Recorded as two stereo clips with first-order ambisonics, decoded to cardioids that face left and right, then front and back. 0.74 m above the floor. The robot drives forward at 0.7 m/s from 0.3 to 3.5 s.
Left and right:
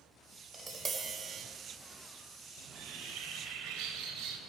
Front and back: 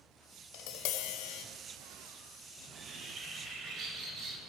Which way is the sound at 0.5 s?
15° right.